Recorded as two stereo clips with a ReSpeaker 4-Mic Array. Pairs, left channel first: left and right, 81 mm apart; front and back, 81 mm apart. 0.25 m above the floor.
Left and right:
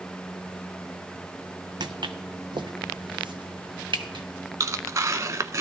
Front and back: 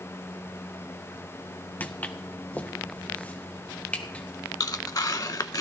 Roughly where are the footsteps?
Ahead right.